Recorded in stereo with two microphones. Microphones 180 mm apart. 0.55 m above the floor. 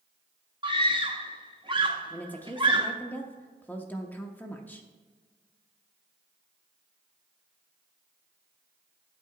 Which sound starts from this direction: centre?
A woman speaking, at 2.1 s.